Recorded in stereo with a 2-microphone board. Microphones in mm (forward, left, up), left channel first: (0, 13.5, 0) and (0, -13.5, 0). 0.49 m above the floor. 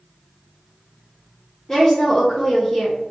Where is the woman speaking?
20° left (ahead or behind), 0.8 m.